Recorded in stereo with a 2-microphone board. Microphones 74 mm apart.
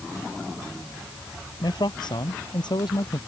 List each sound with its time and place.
1.6 s a man speaking: 80° left